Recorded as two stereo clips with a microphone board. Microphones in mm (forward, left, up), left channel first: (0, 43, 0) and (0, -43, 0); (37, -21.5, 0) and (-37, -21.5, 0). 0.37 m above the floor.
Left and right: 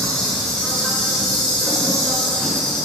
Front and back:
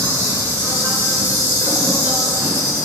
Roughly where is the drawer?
I don't hear a drawer.